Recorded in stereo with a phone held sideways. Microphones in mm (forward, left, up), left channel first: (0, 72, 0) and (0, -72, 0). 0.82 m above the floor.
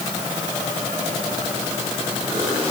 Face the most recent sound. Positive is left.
No sound to turn to.